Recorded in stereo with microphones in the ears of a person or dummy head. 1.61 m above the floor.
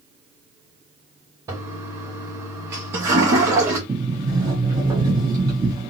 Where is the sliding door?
25° right (ahead or behind), 1.1 m.